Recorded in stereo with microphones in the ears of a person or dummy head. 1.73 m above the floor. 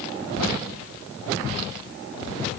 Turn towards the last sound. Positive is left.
No sound to turn to.